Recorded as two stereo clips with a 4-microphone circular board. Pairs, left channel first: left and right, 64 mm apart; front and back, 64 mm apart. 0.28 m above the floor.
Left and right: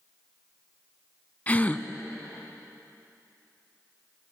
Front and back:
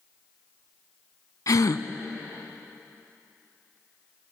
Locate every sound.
1.5 s a gasp: 25° left, 0.8 m